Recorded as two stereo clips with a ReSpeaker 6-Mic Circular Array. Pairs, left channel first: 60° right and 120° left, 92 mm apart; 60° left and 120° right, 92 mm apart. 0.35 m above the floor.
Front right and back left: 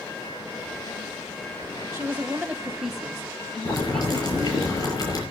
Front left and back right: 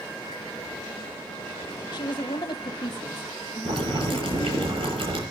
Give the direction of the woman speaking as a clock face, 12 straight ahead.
10 o'clock.